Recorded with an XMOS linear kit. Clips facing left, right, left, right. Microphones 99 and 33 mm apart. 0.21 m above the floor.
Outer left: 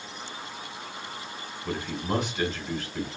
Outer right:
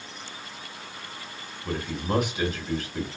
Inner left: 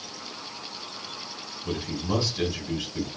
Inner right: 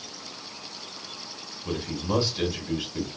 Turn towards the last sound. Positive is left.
turn(degrees=-15)  # may be behind; listen again after turning